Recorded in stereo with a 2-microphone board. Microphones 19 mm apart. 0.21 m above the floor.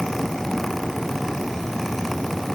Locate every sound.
Only background noise.